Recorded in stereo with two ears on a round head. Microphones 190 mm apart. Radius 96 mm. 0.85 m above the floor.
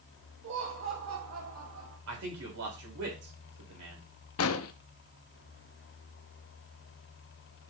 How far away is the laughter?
About 1.3 m.